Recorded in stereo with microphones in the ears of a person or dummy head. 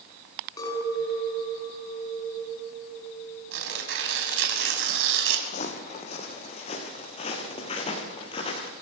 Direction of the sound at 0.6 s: 20° left (ahead or behind).